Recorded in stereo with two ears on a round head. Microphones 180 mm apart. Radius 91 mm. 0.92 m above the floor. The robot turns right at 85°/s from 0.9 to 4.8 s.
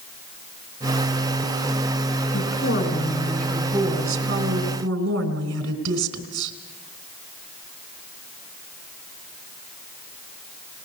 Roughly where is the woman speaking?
Left.